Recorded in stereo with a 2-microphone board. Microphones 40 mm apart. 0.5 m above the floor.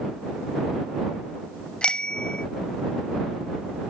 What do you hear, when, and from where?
1.8 s a bicycle bell: 20° left (ahead or behind)